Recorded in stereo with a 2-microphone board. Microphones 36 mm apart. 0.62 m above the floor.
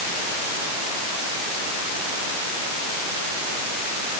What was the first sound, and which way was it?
Only background noise.